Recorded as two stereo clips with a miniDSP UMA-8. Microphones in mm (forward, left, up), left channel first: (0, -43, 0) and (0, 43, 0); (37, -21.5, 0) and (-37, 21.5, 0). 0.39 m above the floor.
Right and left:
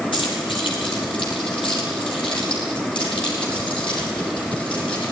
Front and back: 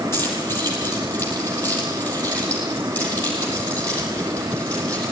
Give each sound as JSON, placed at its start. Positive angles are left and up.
{"t": 0.1, "sound": "keys jangling", "azimuth_deg": -90, "distance_m": 9.5}